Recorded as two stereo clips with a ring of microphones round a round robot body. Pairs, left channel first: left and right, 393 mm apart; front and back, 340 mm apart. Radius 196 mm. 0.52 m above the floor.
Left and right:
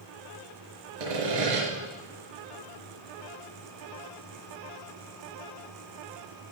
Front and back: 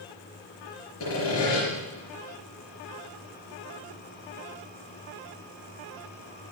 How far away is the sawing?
About 5 m.